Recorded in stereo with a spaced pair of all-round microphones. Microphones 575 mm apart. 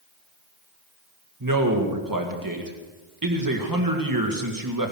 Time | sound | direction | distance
1.4 | a man speaking | 35° right (ahead or behind) | 2.0 m